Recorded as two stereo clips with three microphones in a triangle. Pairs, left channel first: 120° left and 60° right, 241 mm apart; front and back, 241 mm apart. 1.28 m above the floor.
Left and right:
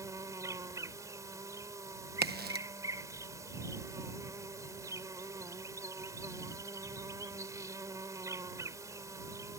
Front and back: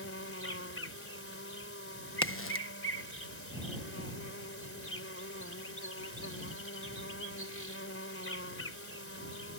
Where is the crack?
15° right.